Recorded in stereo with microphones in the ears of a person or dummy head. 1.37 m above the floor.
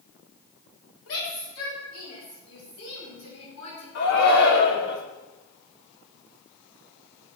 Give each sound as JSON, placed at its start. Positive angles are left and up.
{"t": 1.1, "sound": "a shout", "side_deg": 85, "distance_m": 4.5}
{"t": 4.0, "sound": "a shout", "side_deg": 60, "distance_m": 3.0}